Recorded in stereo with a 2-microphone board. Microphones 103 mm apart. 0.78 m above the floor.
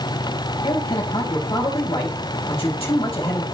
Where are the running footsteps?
No running footsteps in this recording.